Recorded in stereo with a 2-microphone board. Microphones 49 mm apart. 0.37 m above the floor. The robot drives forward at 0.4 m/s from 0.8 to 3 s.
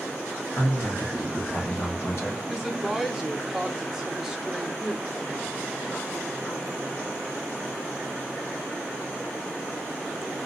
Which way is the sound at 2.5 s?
10° right (ahead or behind).